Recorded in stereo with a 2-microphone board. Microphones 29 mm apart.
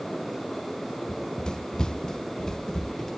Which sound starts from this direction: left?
Running footsteps, at 1.1 s.